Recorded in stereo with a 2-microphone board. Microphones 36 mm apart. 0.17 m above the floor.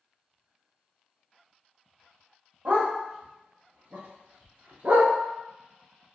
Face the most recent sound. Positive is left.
turn(degrees=-50)  # may be behind; listen again after turning